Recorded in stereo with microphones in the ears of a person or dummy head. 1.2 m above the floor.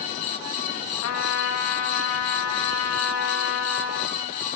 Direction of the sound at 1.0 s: 75° left (ahead or behind).